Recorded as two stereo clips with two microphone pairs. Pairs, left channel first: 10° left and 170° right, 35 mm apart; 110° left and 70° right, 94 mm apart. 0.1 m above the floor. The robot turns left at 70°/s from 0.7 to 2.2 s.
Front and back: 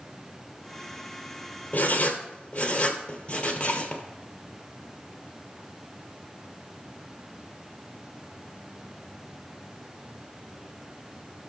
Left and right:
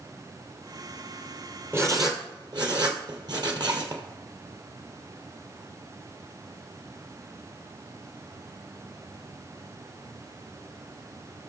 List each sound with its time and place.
1.7 s writing: 10° right, 1.7 m; by 4.0 s 45° right, 1.7 m